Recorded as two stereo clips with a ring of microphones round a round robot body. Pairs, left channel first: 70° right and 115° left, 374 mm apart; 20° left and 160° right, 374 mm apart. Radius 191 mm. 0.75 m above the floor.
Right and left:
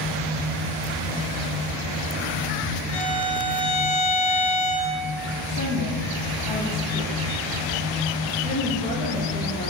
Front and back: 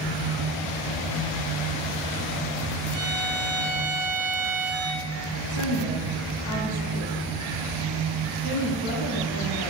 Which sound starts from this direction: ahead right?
A violin, at 2.9 s.